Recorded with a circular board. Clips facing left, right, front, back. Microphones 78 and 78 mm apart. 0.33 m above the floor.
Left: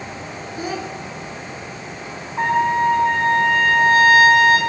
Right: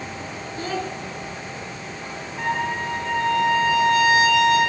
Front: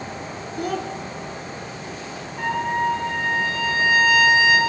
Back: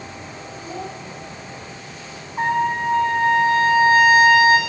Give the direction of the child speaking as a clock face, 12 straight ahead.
12 o'clock.